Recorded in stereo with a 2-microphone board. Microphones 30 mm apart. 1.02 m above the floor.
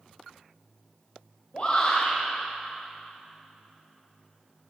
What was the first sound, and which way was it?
A shout, 40° left (ahead or behind).